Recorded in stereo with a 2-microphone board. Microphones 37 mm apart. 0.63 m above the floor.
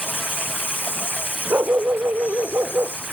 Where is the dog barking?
80° right.